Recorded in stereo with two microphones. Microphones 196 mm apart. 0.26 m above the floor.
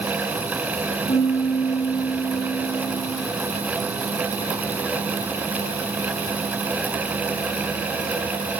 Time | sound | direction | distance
1.1 | a piano | 55° left (ahead or behind) | 3 m